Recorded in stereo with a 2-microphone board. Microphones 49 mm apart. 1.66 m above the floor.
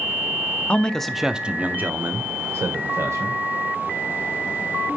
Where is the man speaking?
25° left (ahead or behind), 0.8 m; by 3.4 s 65° right (ahead or behind), 2 m.